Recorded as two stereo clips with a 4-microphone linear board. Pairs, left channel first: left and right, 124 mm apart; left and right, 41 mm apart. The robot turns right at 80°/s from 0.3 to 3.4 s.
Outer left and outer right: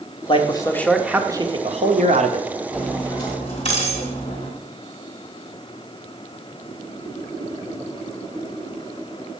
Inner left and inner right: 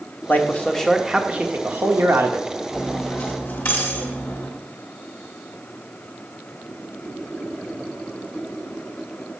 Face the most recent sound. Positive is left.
turn(degrees=45)